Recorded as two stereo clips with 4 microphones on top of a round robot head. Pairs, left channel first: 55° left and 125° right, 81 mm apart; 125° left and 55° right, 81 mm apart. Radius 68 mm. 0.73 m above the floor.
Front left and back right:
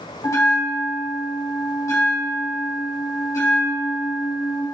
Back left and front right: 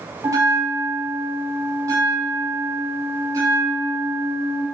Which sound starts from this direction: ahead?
A bell, at 0.2 s.